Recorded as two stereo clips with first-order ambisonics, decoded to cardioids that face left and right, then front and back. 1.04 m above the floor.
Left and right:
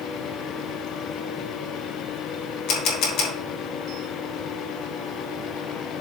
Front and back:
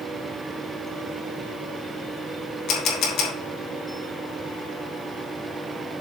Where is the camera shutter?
45° left, 2.5 m.